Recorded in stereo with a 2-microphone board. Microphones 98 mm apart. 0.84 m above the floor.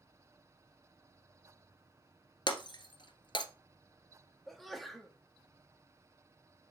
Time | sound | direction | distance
2.5 | breaking glass | 55° left (ahead or behind) | 1.3 m
4.5 | a sneeze | centre (ahead or behind) | 1.6 m